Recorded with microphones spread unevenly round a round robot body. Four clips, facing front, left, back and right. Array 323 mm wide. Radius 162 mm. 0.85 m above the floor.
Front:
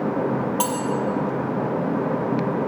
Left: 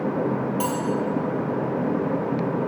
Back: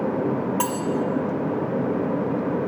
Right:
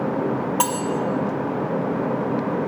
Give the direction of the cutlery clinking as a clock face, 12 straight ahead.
3 o'clock.